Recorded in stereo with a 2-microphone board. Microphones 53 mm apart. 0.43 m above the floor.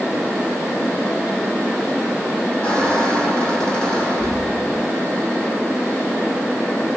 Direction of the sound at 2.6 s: 20° left (ahead or behind).